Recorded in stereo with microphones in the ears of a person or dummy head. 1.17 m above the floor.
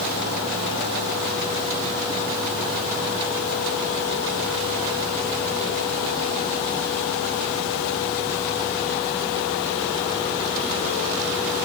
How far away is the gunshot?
No gunshot in this recording.